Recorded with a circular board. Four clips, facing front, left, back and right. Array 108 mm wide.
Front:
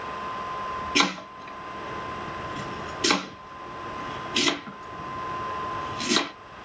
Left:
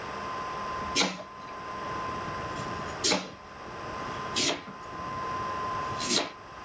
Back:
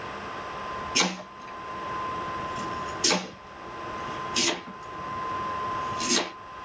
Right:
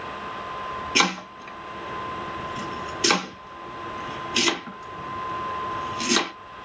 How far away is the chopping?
About 2.5 m.